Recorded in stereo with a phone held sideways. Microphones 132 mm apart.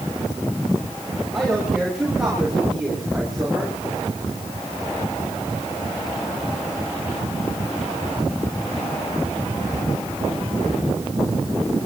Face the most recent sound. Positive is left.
turn(degrees=-5)  # may be behind; listen again after turning